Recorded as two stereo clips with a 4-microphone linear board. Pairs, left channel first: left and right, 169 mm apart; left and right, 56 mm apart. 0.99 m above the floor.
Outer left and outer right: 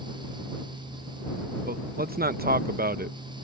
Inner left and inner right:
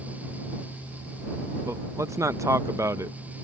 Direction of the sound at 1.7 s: 65° right (ahead or behind).